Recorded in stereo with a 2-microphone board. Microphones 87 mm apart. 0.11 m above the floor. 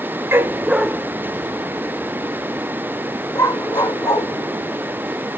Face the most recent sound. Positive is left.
turn(degrees=45)  # may be behind; listen again after turning